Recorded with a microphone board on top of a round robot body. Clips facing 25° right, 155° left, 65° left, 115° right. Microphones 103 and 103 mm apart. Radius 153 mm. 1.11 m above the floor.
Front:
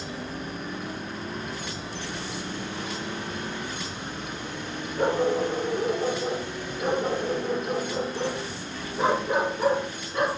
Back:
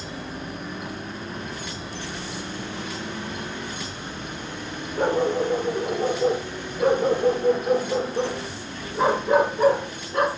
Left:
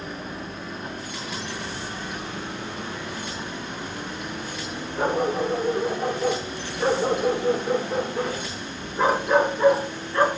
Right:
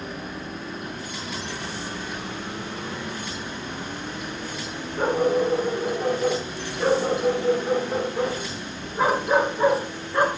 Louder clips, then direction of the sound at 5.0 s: Back 2 dB, right 2 dB; 155° left.